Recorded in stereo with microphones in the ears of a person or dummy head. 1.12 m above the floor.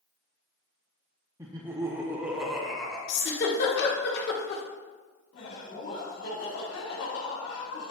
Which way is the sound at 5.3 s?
75° left (ahead or behind).